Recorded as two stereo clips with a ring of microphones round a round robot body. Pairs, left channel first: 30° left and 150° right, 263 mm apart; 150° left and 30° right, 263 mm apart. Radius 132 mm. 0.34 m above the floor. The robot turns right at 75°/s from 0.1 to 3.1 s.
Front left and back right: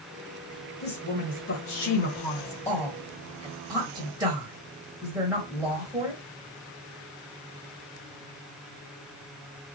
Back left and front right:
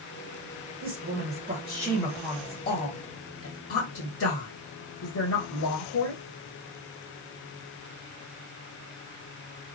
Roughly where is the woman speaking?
Ahead right.